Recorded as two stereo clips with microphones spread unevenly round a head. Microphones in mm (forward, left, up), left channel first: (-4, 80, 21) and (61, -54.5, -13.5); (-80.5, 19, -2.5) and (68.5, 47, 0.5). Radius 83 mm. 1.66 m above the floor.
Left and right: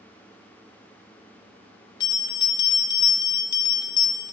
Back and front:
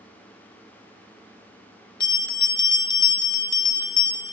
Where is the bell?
140° left, 0.8 m.